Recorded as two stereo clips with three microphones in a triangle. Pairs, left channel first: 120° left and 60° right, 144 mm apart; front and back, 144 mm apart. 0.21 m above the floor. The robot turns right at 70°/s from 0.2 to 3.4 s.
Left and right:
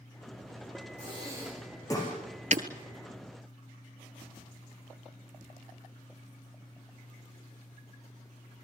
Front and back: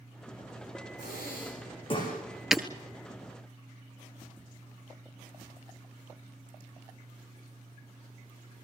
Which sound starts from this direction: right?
Breaking glass, at 2.5 s.